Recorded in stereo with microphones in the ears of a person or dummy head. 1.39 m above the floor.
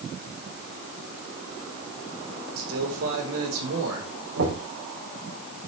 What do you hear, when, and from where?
2.6 s a man speaking: 80° right, 3.5 m
4.4 s knocking: 90° right, 6 m